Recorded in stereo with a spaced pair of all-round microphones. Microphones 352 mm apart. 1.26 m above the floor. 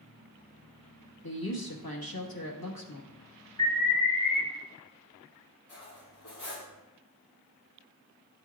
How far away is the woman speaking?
About 1.4 m.